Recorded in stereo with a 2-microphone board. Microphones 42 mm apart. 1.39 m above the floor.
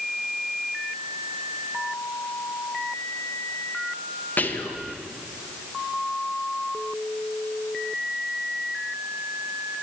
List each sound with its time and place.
4.4 s whispering: 45° left (ahead or behind), 0.8 m